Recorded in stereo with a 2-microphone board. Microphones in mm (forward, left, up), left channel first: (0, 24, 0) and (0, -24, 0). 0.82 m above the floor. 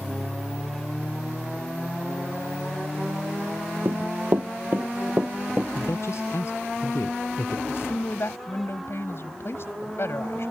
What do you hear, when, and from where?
3.9 s running footsteps: 55° right (ahead or behind); by 5.7 s 35° right (ahead or behind)
5.8 s a man speaking: 65° left (ahead or behind)
7.7 s a woman speaking: 55° left (ahead or behind)